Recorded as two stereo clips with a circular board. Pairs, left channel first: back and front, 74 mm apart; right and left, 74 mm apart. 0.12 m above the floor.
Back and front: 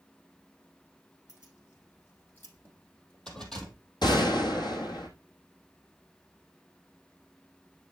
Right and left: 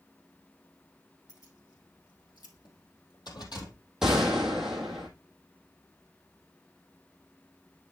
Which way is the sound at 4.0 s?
175° left.